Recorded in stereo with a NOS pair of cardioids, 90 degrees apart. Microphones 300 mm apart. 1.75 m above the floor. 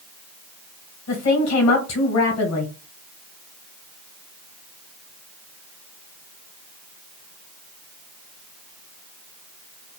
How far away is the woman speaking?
About 1.4 m.